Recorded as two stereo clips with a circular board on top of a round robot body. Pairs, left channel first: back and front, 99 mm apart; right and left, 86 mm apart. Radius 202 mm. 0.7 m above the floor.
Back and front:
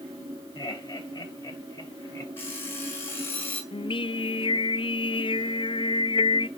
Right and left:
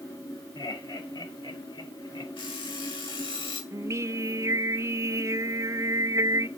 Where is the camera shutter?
No camera shutter in this recording.